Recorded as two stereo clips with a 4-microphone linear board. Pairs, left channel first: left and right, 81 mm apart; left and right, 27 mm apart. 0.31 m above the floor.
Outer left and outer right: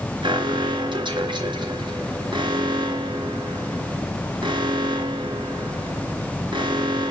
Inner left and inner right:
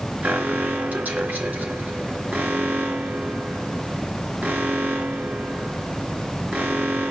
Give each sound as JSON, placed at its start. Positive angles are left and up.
{"t": 0.2, "sound": "an alarm", "side_deg": -75, "distance_m": 3.5}